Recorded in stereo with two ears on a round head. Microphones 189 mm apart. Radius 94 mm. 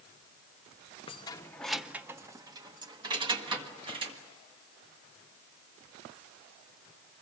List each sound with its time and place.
1.1 s keys jangling: 25° left (ahead or behind), 0.6 m; by 4.2 s 25° right (ahead or behind), 2 m